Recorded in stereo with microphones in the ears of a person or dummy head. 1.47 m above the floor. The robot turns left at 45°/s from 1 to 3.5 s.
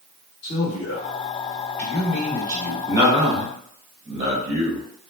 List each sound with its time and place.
0.4 s a man speaking: 45° left, 1.3 m; by 2.8 s 35° right, 1.3 m
2.9 s a man speaking: 15° right (ahead or behind), 0.7 m; by 5.1 s 40° right (ahead or behind), 0.7 m